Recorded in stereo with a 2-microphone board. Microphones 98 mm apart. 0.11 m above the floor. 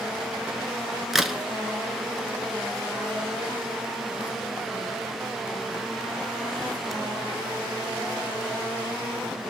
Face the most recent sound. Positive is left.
turn(degrees=0)  # may be behind; listen again after turning